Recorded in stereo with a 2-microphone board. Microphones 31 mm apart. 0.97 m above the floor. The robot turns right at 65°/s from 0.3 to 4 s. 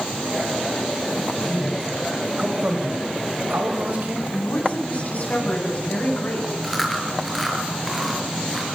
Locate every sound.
1.4 s a man speaking: 140° left, 5.5 m; by 4.2 s 50° right, 5.5 m
4.3 s a woman speaking: 45° left (ahead or behind), 10 m
6.6 s chewing: centre (ahead or behind), 5.5 m